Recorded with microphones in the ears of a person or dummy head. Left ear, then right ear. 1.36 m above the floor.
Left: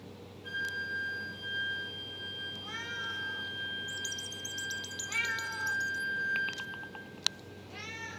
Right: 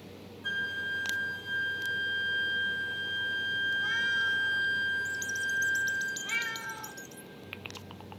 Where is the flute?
45° right (ahead or behind), 0.7 m.